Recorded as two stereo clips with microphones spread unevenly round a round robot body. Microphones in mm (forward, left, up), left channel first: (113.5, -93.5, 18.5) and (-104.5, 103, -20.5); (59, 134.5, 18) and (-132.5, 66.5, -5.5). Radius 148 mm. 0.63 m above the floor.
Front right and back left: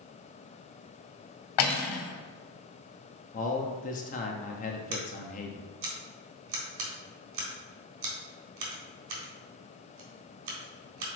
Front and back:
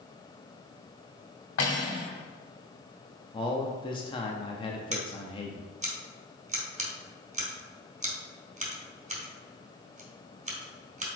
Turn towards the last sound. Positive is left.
turn(degrees=145)